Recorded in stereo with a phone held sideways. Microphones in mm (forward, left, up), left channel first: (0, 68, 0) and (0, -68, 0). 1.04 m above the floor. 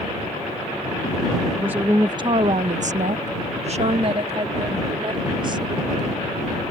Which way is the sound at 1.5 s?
10° right (ahead or behind).